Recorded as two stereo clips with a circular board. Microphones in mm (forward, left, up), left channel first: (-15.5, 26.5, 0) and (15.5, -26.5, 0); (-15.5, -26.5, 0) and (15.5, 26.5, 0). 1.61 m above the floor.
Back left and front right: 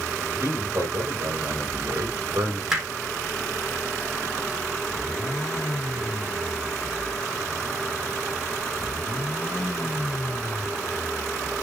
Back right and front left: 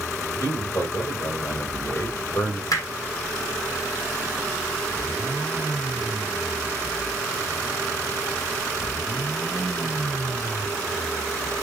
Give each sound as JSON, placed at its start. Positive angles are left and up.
{"t": 0.2, "sound": "a man speaking", "azimuth_deg": -95, "distance_m": 7.0}
{"t": 2.7, "sound": "hammering", "azimuth_deg": -140, "distance_m": 3.0}